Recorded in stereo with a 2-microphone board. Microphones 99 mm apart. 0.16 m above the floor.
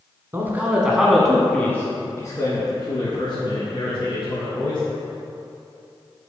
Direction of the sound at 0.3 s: 25° right (ahead or behind).